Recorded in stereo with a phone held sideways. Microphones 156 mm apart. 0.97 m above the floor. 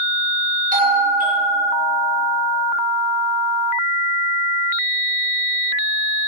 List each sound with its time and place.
0.7 s a doorbell: 60° right (ahead or behind), 3 m